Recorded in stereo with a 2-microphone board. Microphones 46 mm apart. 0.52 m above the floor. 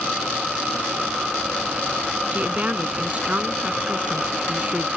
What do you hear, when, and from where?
2.3 s a woman speaking: 30° right (ahead or behind)